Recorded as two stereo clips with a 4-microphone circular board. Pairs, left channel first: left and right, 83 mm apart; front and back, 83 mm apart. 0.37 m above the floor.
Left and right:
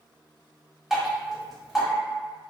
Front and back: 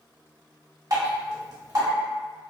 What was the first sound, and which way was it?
Dripping, 175° right.